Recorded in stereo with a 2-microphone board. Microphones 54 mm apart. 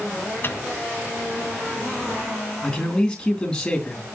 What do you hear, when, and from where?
0.4 s a microwave: 45° left (ahead or behind), 1.6 m
2.6 s a man speaking: 15° left (ahead or behind), 3 m